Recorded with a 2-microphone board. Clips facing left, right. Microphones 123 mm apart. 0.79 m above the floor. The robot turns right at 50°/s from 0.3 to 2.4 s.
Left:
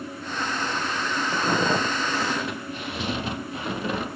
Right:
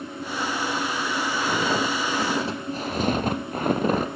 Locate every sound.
1.3 s footsteps: 30° left (ahead or behind), 2.5 m; by 4.1 s 40° right (ahead or behind), 1.2 m